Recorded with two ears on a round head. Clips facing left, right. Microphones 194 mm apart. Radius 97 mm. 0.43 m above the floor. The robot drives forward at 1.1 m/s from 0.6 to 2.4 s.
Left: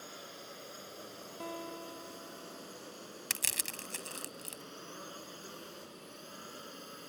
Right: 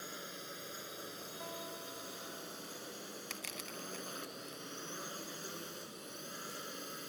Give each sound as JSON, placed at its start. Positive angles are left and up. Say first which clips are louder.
{"t": 0.0, "sound": "a drone", "louder": "right 1 dB", "side_deg": -20}
{"t": 1.4, "sound": "a guitar", "louder": "left 7 dB", "side_deg": 50}
{"t": 3.3, "sound": "crushing", "louder": "even", "side_deg": 60}